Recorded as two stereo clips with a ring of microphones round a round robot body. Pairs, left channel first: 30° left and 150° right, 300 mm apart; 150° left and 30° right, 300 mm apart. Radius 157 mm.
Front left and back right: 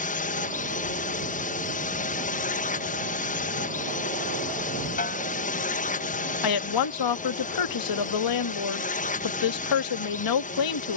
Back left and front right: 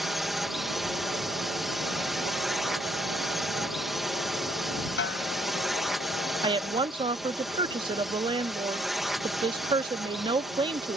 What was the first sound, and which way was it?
A drone, 60° left.